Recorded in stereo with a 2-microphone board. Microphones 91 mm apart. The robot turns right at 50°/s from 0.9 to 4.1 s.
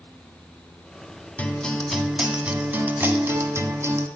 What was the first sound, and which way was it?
A guitar, 145° left.